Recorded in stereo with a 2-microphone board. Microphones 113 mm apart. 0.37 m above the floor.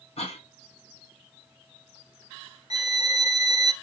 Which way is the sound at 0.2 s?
65° left (ahead or behind).